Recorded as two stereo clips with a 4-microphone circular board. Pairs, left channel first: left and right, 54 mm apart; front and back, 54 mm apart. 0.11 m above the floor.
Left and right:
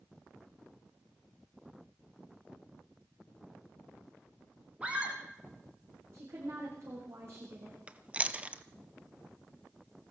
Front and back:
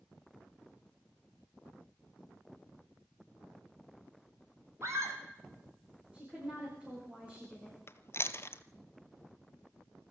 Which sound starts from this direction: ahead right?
Chewing, at 7.9 s.